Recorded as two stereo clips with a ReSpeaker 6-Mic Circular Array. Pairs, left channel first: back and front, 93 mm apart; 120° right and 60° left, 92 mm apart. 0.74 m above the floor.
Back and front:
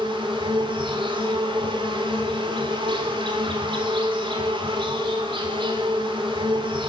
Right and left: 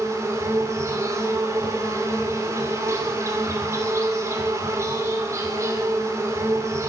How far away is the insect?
About 2.5 m.